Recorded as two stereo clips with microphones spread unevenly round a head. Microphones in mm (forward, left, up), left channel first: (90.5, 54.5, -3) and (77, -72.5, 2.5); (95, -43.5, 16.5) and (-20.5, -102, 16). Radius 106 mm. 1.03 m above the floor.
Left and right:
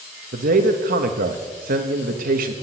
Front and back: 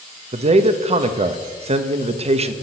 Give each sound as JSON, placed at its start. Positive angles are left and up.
{"t": 0.3, "sound": "a man speaking", "azimuth_deg": -115, "distance_m": 1.1}